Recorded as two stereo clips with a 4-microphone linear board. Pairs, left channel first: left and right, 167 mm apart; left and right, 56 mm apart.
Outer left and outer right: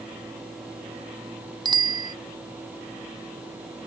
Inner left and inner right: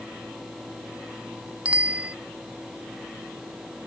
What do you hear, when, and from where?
1.6 s a bicycle bell: 25° right (ahead or behind)